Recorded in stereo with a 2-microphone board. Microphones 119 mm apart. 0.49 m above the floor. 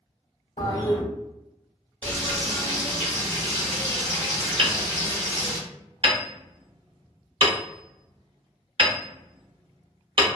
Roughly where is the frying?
Centre.